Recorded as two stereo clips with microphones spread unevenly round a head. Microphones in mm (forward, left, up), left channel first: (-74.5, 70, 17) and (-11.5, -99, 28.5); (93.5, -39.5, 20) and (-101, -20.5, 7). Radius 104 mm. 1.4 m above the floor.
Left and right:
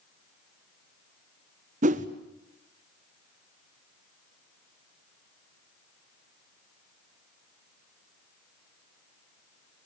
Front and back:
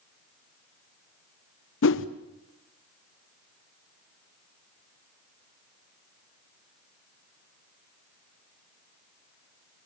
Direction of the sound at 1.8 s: 15° right.